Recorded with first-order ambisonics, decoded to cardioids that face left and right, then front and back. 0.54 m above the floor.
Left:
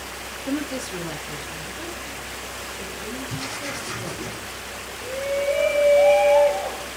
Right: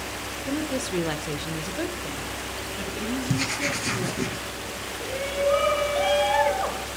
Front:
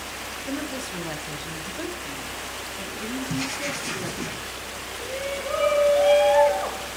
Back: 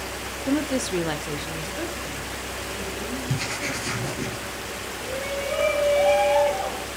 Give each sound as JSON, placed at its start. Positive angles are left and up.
{"t": 0.5, "sound": "a woman speaking", "azimuth_deg": 170, "distance_m": 1.4}
{"t": 3.3, "sound": "writing", "azimuth_deg": -110, "distance_m": 4.5}
{"t": 5.0, "sound": "a shout", "azimuth_deg": -70, "distance_m": 6.0}